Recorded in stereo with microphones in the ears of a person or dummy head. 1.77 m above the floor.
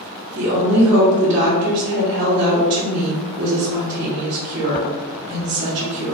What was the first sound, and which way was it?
A woman speaking, 45° right (ahead or behind).